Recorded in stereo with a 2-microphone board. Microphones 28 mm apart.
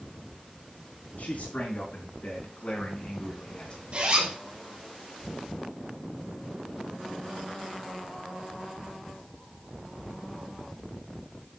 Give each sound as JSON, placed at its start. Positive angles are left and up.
{"t": 1.2, "sound": "a man speaking", "side_deg": 65, "distance_m": 4.5}
{"t": 3.9, "sound": "a zipper", "side_deg": -40, "distance_m": 3.0}